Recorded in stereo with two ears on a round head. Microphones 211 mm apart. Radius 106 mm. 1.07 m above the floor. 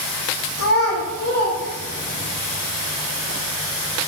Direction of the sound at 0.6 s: 75° left (ahead or behind).